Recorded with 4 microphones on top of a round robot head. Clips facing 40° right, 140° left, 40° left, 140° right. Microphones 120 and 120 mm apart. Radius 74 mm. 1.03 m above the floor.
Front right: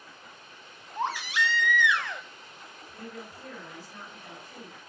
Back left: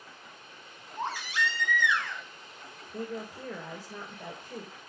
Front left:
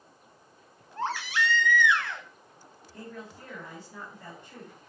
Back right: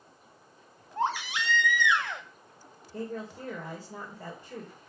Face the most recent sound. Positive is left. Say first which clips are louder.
# back left 6 dB, back right 7 dB
turn(degrees=165)